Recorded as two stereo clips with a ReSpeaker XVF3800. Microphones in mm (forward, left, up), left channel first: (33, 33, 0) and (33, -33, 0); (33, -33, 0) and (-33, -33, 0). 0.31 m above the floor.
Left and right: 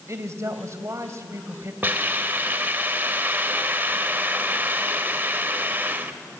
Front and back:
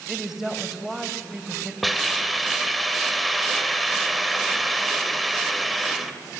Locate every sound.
0.1 s a woman speaking: 100° right, 2 m
1.8 s a hiss: 95° right, 1.5 m